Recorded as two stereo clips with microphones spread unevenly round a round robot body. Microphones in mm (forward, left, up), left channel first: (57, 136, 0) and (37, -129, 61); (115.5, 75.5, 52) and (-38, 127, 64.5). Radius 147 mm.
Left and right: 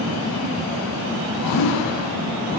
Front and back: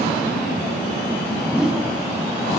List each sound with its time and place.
1.5 s a whoosh: 75° left, 2.5 m